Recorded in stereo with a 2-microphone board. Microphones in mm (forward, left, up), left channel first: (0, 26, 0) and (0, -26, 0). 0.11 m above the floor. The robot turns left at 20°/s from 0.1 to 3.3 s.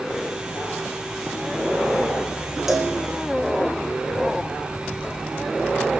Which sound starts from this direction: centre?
A cowbell, at 2.7 s.